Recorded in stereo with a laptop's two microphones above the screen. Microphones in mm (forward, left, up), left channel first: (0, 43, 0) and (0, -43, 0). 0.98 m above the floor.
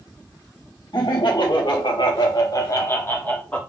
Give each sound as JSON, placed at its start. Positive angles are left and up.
{"t": 0.9, "sound": "laughter", "side_deg": 60, "distance_m": 1.3}